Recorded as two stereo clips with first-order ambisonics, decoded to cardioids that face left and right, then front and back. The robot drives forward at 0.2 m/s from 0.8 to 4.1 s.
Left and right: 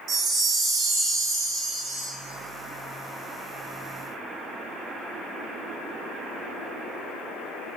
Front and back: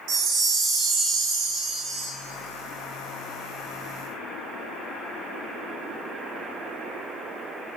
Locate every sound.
0.1 s a chime: 150° right, 0.7 m; by 2.1 s 160° right, 0.9 m